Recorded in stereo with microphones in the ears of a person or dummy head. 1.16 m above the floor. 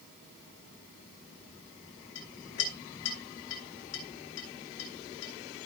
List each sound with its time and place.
2.1 s a clink: 75° left (ahead or behind), 3.5 m